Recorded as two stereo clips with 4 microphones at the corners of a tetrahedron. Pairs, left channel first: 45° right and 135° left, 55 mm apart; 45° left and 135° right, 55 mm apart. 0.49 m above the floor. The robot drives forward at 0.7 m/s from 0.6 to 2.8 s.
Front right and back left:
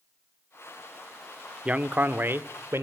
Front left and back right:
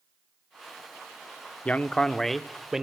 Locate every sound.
1.6 s a man speaking: 85° left, 0.8 m; by 2.8 s 145° left, 1.1 m